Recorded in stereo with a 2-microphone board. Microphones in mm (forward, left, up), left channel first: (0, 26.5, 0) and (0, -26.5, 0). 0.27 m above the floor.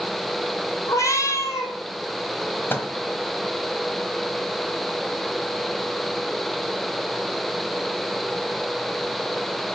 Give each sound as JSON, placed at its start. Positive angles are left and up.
{"t": 0.9, "sound": "a cat meowing", "side_deg": 70, "distance_m": 2.0}
{"t": 2.7, "sound": "a microwave", "side_deg": 45, "distance_m": 1.3}